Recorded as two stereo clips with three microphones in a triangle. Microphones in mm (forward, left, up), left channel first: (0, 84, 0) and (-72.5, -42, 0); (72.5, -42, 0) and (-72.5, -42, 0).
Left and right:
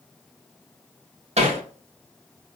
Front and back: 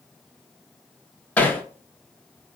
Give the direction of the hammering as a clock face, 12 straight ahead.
3 o'clock.